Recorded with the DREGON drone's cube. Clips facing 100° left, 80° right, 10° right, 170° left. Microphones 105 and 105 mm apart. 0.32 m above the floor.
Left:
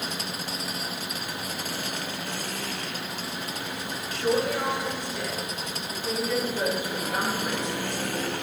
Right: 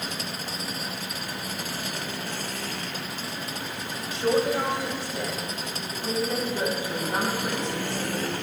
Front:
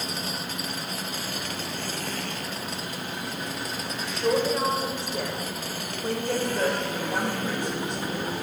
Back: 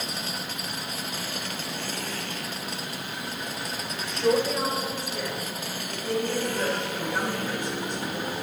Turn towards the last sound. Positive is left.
turn(degrees=-25)